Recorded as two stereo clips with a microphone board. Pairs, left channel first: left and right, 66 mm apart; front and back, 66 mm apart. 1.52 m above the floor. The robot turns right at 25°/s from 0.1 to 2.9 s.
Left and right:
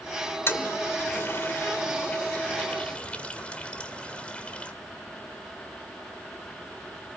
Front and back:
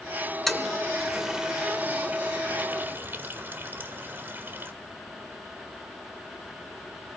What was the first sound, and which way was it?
A toilet flushing, 85° left.